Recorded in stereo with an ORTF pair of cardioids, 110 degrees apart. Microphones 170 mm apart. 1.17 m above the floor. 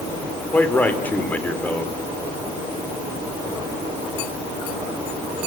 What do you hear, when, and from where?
0.5 s a man speaking: 10° left, 4 m